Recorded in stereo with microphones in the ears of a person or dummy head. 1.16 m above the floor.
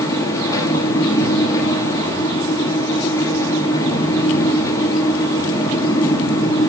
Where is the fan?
20° left (ahead or behind), 1.1 m.